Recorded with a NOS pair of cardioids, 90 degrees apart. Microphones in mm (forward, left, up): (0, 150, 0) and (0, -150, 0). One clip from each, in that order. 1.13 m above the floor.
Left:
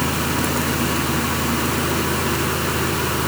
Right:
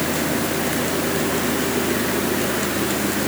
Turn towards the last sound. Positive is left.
turn(degrees=60)